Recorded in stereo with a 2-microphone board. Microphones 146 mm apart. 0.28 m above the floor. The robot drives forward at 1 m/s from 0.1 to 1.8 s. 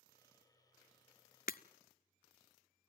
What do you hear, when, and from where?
1.5 s breaking glass: 70° left (ahead or behind), 0.5 m; by 1.6 s 80° left, 0.5 m